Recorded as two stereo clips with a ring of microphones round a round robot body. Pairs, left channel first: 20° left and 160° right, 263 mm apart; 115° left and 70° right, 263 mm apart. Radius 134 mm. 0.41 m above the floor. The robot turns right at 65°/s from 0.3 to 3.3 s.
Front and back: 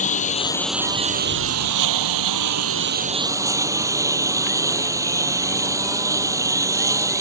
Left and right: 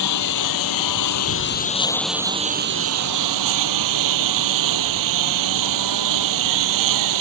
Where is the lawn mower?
85° left; by 7.2 s 80° right.